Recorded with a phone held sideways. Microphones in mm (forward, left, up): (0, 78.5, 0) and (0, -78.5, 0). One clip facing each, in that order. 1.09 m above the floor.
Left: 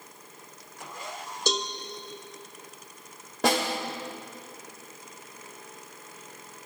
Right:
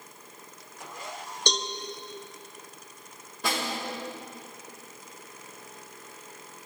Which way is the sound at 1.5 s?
5° left (ahead or behind).